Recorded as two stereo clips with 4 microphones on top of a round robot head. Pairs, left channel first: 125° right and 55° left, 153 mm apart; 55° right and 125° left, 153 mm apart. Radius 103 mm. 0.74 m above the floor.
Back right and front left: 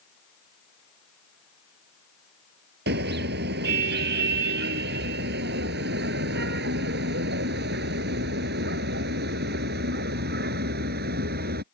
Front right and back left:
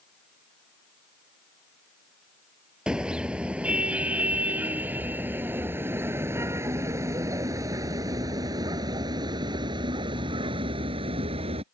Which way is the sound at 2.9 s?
45° left.